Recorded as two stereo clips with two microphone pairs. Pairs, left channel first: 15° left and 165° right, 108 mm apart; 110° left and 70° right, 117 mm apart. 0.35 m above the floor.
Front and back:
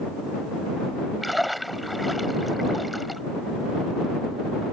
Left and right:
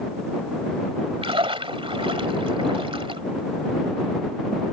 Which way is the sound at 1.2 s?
75° right.